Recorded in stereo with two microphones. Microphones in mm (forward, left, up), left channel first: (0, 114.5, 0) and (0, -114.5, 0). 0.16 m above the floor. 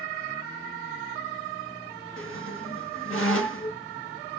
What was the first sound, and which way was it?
A squeak, 65° left (ahead or behind).